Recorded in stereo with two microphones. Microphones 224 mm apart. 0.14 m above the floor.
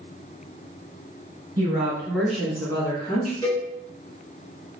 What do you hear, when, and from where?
1.6 s a woman speaking: 20° right (ahead or behind), 1.9 m; by 3.3 s 35° left (ahead or behind), 1.7 m
3.4 s a cowbell: 20° left (ahead or behind), 0.8 m